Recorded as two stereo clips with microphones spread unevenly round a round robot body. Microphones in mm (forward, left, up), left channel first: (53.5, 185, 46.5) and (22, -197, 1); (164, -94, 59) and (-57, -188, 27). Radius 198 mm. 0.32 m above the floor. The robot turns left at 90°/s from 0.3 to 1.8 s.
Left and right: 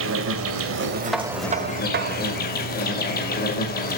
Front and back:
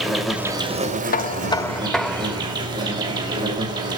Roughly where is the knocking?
Ahead.